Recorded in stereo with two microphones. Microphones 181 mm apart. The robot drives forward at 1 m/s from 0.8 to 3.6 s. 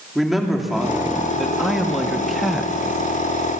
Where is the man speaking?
Centre (ahead or behind), 2.5 m.